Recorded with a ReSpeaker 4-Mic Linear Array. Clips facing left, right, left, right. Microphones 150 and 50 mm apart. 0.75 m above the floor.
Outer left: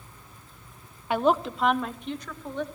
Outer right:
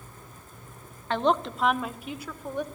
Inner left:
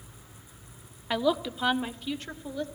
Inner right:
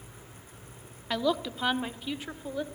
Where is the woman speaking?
10° left (ahead or behind), 1.2 m; by 2.6 s 10° right (ahead or behind), 2.5 m.